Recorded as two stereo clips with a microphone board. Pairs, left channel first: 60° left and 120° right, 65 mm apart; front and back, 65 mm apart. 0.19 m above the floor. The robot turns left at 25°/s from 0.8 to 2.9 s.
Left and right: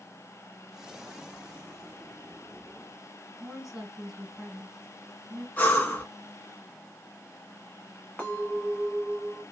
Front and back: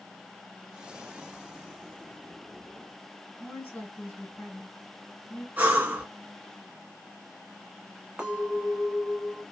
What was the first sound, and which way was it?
A woman speaking, 35° right.